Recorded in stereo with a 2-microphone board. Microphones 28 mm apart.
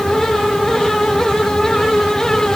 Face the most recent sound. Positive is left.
No sound to turn to.